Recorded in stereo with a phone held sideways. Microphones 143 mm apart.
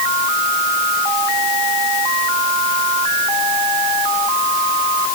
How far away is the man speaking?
I don't hear a man speaking.